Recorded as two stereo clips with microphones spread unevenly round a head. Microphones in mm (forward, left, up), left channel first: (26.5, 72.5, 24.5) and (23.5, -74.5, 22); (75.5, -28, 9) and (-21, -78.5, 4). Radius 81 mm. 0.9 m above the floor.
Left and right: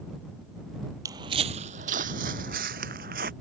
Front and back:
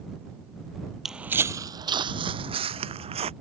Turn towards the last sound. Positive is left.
turn(degrees=-130)